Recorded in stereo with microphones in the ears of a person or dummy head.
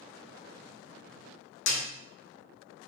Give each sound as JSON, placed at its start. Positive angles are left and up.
{"t": 1.7, "sound": "a snare drum", "side_deg": 60, "distance_m": 0.9}